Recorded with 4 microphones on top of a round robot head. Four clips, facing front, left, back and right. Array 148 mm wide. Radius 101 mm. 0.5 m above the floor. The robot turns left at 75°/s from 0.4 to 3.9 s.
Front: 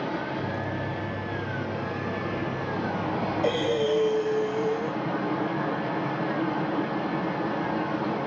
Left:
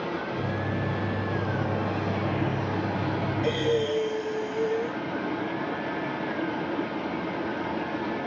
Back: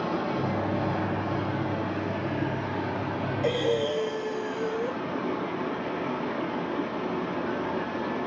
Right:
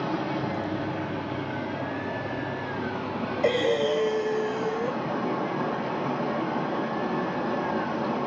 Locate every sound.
0.0 s running water: 140° right, 3 m; by 8.3 s 45° right, 3 m
3.4 s breathing: 65° right, 1.9 m; by 5.0 s 100° right, 1.9 m